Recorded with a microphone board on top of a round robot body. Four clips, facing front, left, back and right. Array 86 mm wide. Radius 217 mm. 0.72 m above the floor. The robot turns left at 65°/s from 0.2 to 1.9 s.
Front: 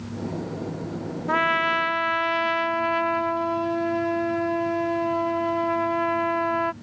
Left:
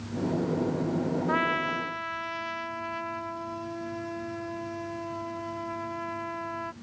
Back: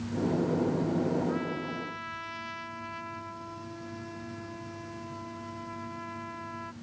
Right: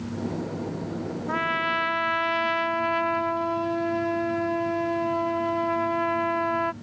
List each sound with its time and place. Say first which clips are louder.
1.3 s a trumpet: right 5 dB, front 10 dB; 10° left; by 6.7 s 30° right